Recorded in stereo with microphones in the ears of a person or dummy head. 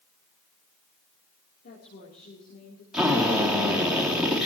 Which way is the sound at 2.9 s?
Centre (ahead or behind).